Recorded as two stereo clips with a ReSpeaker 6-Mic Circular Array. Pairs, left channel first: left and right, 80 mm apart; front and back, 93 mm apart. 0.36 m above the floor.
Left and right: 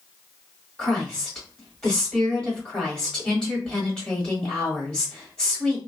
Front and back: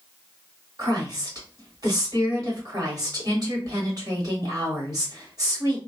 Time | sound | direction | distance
0.8 | a woman speaking | 165° left | 1.6 m